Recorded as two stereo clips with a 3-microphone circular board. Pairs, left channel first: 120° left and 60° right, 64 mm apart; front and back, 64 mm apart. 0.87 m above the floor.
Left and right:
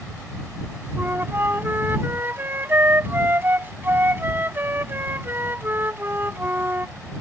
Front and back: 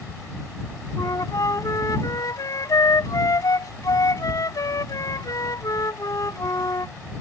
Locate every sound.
1.0 s a flute: 5° right